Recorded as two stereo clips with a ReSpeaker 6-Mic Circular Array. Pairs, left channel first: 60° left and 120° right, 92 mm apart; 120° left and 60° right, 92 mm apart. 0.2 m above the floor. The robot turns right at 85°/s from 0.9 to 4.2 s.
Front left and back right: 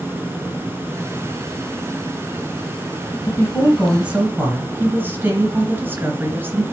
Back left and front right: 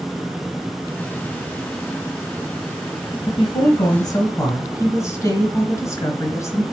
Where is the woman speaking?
90° left, 2.5 m; by 6.6 s 170° left, 2.5 m.